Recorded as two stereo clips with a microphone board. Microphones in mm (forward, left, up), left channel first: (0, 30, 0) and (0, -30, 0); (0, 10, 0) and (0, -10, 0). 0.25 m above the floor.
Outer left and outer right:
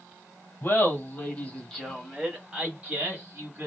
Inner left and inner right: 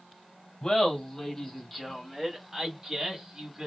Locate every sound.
0.6 s laughter: 40° left (ahead or behind), 1.3 m; by 3.7 s 40° right (ahead or behind), 1.4 m